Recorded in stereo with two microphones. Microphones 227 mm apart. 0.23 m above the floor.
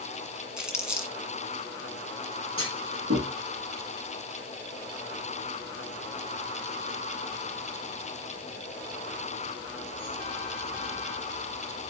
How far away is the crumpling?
About 1.5 m.